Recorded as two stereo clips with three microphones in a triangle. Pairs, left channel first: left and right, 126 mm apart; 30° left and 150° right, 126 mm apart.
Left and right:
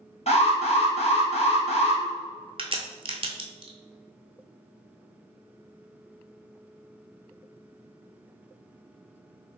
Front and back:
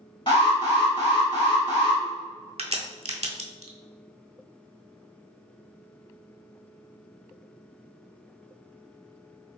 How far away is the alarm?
About 1.8 m.